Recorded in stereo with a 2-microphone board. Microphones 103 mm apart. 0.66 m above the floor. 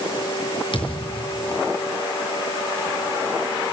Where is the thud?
50° left (ahead or behind), 5 m.